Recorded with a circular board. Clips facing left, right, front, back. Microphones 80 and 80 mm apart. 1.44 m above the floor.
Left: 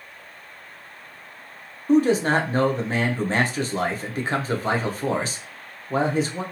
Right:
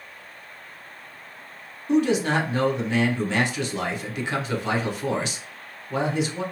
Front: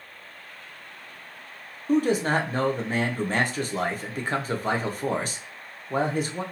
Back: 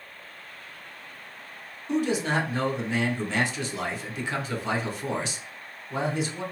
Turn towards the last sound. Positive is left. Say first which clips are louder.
# left 3 dB, front 3 dB
turn(degrees=40)